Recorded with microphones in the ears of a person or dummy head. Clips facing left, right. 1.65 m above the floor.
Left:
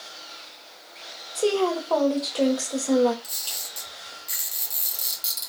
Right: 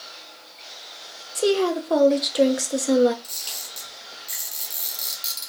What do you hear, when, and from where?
1.4 s a woman speaking: 20° right (ahead or behind), 0.9 m
3.2 s a camera shutter: 5° left (ahead or behind), 1.7 m